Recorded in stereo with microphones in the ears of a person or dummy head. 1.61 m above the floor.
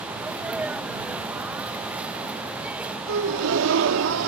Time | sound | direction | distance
0.1 | a sneeze | 5° right (ahead or behind) | ?
3.1 | a gasp | 70° right (ahead or behind) | ?